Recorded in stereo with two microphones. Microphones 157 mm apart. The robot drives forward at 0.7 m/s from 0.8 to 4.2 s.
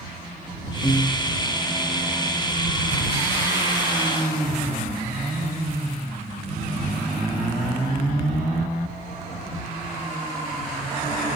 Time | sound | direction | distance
0.8 | a piano | 20° left (ahead or behind) | 1.4 m